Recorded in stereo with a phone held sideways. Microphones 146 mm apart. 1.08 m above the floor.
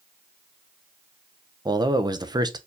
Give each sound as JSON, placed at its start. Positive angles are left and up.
{"t": 1.6, "sound": "a man speaking", "side_deg": -30, "distance_m": 0.6}